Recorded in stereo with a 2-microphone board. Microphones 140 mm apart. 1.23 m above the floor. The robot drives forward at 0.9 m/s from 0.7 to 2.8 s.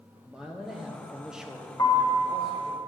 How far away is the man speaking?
About 0.6 m.